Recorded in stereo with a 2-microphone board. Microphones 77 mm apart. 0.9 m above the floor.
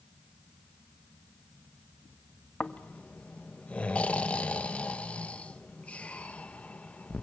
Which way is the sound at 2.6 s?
20° left (ahead or behind).